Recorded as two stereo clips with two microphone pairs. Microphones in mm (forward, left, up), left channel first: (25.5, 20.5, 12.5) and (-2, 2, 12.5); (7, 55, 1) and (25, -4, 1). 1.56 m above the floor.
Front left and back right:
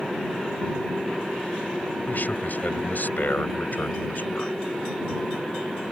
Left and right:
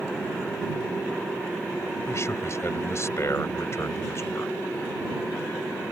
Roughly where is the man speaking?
Ahead left.